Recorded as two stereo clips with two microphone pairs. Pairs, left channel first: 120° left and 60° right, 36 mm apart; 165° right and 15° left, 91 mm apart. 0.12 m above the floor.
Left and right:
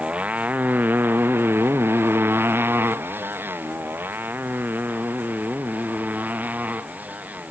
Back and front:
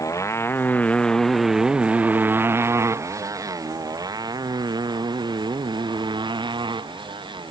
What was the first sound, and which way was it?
A motorcycle, 115° right.